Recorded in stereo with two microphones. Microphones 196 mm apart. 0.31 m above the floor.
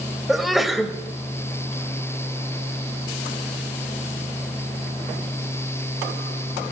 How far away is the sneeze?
About 1.2 m.